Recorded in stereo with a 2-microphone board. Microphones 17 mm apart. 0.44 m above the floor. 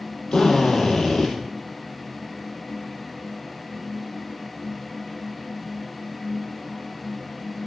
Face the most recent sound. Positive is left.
turn(degrees=75)  # may be behind; listen again after turning